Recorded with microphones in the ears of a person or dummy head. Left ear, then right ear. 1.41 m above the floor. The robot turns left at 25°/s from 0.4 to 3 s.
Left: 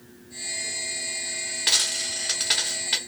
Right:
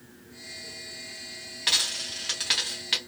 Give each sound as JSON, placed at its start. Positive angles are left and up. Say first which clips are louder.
{"t": 1.7, "sound": "a dropped coin", "louder": "left 2 dB", "azimuth_deg": 0, "distance_m": 1.3}